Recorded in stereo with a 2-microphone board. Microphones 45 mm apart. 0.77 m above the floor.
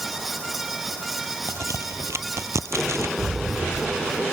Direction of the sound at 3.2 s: 30° right (ahead or behind).